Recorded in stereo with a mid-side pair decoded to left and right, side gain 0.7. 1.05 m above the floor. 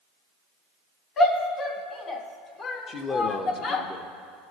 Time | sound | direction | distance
1.2 | a shout | 40° left | 2.5 m
2.9 | a man speaking | 35° left | 0.9 m